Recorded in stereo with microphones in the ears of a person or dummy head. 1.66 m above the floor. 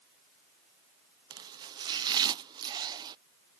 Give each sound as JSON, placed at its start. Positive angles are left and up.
{"t": 1.3, "sound": "chopping", "side_deg": -20}